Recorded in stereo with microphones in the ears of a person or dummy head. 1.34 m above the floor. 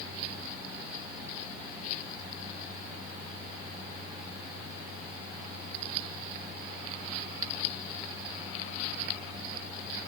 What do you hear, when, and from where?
Only background noise.